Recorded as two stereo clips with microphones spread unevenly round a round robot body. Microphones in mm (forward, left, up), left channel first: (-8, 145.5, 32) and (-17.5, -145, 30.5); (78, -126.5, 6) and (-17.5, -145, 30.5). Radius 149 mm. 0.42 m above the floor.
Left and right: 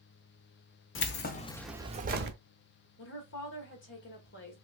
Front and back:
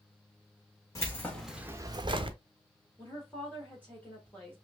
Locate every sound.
0.9 s keys jangling: 50° left, 0.8 m; by 2.4 s 135° right, 0.8 m
3.0 s a woman speaking: 60° left, 1.3 m